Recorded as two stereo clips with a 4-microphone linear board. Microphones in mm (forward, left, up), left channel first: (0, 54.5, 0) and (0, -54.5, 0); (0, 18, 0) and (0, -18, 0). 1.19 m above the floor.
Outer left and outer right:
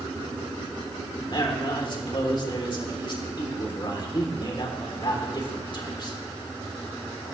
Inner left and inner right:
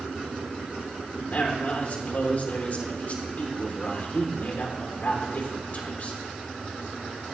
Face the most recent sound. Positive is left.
turn(degrees=45)  # may be behind; listen again after turning